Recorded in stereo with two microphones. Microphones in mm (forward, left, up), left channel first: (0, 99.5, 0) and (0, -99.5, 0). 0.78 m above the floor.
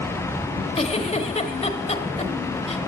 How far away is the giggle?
About 1.2 m.